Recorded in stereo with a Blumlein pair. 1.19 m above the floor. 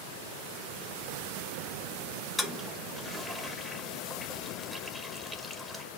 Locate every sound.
2.4 s a toilet flushing: 5° left, 0.7 m